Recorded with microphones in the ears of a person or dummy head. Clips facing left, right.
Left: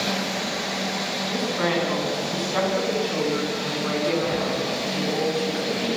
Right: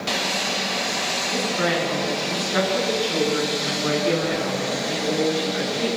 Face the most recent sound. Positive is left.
turn(degrees=-30)  # may be behind; listen again after turning